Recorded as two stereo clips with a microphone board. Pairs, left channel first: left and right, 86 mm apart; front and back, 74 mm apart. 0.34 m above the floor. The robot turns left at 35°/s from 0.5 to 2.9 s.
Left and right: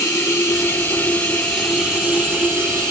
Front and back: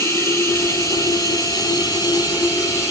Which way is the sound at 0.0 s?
40° left.